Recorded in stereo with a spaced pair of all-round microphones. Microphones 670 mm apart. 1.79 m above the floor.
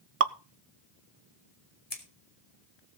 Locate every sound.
0.2 s dripping: 55° right (ahead or behind), 0.7 m
1.9 s scissors: 55° left (ahead or behind), 2.5 m